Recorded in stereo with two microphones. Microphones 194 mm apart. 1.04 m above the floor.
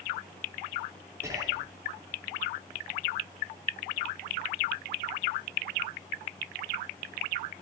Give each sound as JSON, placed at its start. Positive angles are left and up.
{"t": 1.2, "sound": "whispering", "side_deg": -15, "distance_m": 3.5}